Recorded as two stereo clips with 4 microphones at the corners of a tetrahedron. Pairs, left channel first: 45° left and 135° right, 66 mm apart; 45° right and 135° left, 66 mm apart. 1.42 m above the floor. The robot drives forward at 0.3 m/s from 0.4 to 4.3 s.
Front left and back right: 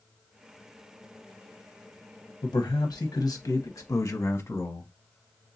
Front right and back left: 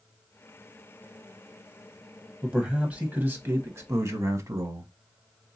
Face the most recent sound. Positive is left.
turn(degrees=95)